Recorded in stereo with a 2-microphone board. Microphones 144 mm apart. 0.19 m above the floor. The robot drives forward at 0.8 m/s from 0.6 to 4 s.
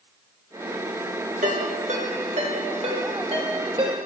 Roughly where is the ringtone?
Right.